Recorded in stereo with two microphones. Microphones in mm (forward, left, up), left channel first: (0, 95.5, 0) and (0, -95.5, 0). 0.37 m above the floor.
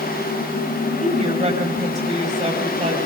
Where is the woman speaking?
40° right (ahead or behind), 9 m.